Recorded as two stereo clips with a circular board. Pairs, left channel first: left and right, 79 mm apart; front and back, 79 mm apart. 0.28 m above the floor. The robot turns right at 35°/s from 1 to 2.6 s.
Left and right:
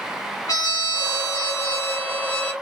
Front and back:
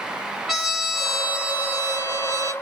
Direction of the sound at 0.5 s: 100° left.